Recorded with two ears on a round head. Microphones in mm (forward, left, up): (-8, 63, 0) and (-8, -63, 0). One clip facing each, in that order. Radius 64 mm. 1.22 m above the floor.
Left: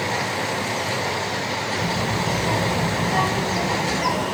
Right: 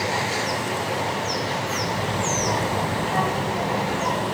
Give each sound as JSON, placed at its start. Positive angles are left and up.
{"t": 1.8, "sound": "a child speaking", "side_deg": 20, "distance_m": 3.5}